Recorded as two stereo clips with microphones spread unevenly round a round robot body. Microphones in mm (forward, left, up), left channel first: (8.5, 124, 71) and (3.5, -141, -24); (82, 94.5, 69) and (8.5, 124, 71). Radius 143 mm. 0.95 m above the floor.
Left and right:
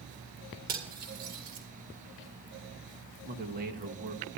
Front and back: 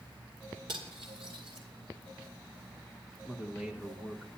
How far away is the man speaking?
About 1.1 m.